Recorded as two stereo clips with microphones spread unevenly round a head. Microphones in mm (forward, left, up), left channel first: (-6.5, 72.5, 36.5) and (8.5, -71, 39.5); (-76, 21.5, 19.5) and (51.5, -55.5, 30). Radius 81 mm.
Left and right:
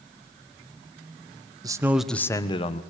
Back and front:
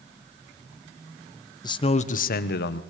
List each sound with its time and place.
1.6 s a man speaking: 150° right, 1.3 m; by 2.8 s 140° left, 1.5 m